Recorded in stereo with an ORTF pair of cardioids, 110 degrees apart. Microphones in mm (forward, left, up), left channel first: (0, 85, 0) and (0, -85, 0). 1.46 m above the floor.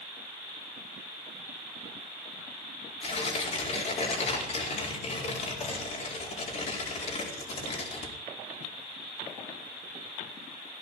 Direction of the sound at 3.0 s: 40° left.